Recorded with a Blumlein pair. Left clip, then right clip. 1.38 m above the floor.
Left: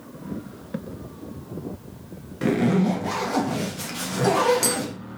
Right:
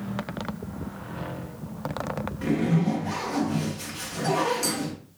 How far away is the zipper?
About 0.8 m.